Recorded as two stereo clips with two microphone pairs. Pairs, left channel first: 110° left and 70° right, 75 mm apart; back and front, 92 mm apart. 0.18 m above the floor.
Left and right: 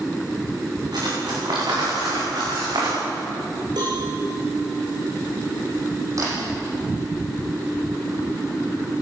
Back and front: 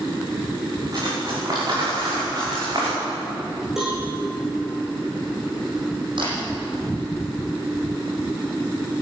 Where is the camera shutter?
30° right, 9.5 m.